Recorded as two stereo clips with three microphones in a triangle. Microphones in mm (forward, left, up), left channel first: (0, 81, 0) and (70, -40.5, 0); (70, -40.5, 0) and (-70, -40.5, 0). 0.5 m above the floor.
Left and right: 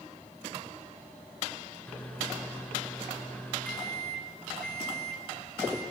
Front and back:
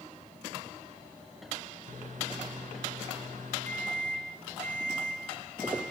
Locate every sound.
1.9 s a microwave: 160° right, 4 m